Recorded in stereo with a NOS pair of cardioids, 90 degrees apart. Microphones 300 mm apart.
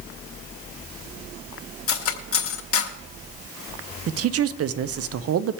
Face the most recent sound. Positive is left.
turn(degrees=-50)